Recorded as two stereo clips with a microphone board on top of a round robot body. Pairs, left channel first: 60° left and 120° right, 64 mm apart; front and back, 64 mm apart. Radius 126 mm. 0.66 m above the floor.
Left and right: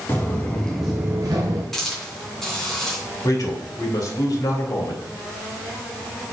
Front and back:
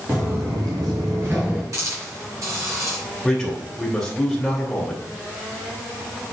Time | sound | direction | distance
0.1 | footsteps | 125° left | 1.4 m
1.7 | a hiss | 145° left | 3 m
3.2 | a man speaking | 85° left | 3 m